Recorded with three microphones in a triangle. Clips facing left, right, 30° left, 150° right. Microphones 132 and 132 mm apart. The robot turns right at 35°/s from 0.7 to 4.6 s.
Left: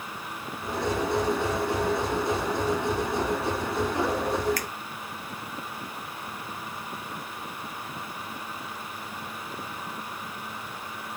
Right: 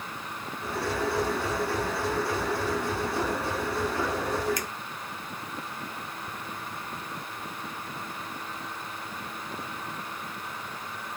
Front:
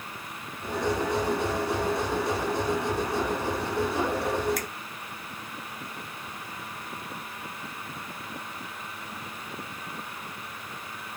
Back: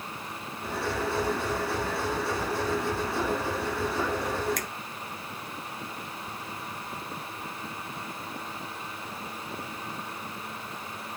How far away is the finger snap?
About 0.6 m.